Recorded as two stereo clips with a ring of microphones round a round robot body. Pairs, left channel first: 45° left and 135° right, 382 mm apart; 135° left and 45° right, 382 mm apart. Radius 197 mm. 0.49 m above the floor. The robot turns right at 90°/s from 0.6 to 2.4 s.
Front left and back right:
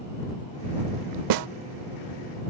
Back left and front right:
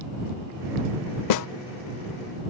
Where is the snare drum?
Straight behind; by 1.5 s 165° right.